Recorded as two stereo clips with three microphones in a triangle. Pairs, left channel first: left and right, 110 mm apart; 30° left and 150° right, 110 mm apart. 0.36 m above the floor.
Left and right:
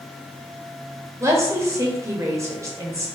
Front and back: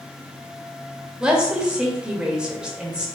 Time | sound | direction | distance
1.2 | a woman speaking | 75° right | 1.2 m